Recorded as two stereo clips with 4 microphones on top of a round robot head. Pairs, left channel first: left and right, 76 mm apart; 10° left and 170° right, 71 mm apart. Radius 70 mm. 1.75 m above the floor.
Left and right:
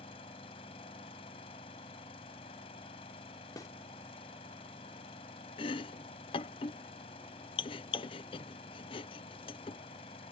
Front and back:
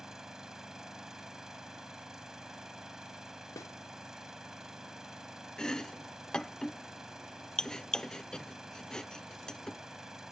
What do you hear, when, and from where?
0.0 s an engine running: 105° left
3.6 s a snare drum: 50° left
5.6 s chopping: 90° left